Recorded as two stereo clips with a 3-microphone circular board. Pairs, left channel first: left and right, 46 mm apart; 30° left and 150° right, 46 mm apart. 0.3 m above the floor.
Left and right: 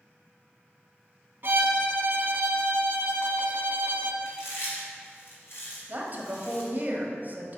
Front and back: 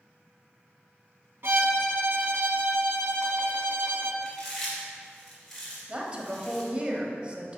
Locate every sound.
1.4 s a violin: 125° right, 0.9 m
4.2 s chewing: 115° left, 2.5 m
5.9 s a woman speaking: 100° right, 1.2 m